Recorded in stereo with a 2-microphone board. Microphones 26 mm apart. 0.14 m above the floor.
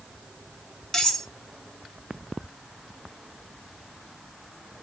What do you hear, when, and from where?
0.9 s cutlery clinking: 20° left (ahead or behind), 0.7 m